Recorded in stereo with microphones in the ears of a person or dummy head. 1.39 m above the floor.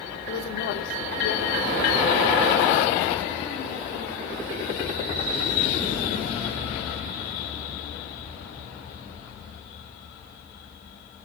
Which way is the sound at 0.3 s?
70° left (ahead or behind).